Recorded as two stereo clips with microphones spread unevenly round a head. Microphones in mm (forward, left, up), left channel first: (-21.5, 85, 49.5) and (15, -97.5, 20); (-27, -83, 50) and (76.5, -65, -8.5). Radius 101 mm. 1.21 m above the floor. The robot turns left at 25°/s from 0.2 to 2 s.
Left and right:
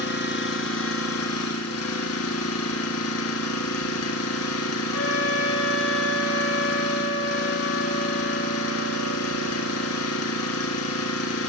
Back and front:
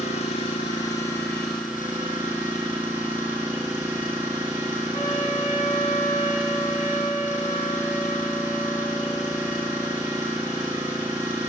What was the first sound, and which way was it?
An engine running, 135° left.